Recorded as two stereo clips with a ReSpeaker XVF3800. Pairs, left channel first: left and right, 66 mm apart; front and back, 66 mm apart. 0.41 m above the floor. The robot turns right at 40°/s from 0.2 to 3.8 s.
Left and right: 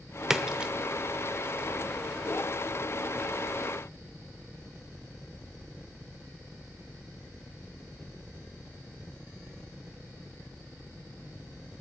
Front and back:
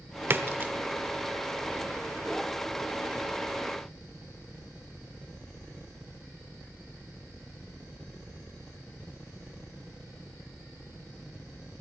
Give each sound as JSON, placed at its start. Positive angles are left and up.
{"t": 0.3, "sound": "a splash", "azimuth_deg": -165, "distance_m": 0.8}